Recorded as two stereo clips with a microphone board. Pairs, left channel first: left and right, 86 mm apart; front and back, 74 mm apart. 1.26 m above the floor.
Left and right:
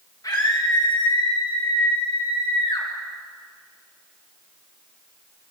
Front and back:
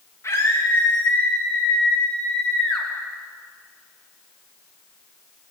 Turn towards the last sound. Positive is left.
turn(degrees=80)